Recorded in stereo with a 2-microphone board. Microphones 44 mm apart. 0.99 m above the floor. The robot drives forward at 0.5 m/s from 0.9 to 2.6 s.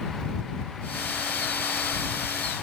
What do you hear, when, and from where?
Only background noise.